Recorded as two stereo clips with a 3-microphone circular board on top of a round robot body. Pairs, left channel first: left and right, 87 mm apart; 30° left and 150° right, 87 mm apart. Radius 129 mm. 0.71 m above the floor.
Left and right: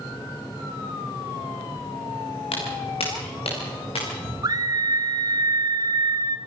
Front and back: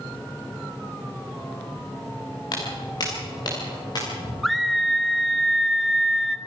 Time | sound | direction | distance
2.5 | footsteps | 75° left | 5.5 m
4.4 | a scream | 60° right | 1.6 m